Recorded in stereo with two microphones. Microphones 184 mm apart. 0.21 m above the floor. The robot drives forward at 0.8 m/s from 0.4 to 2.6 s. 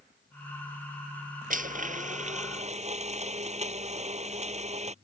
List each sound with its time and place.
1.5 s a blender: 50° right (ahead or behind); by 5.0 s 40° right (ahead or behind)